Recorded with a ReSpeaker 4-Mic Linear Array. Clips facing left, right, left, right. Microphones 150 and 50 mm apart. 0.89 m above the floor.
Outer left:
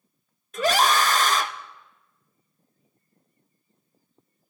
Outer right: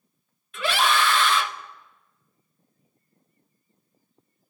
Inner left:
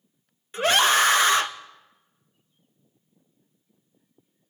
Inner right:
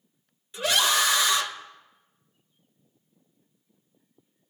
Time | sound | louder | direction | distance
0.5 | a scream | outer left 3 dB, inner left 4 dB | 40° left (ahead or behind) | 0.6 m